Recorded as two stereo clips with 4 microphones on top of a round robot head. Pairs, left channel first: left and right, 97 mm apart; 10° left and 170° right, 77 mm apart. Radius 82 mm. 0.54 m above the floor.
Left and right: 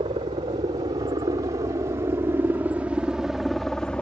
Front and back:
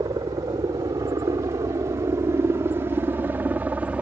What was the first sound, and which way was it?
A helicopter, 125° right.